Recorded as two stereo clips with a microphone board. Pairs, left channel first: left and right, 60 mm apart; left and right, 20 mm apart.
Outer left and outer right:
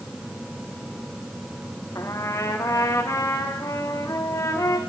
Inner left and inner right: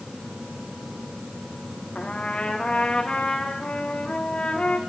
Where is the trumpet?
60° left (ahead or behind), 2.5 m.